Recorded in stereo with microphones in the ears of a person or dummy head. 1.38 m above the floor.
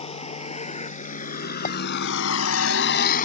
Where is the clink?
40° left (ahead or behind).